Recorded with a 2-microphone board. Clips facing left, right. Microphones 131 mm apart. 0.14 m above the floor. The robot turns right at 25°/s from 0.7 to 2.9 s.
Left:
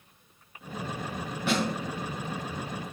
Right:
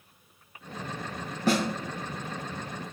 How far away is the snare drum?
About 0.7 m.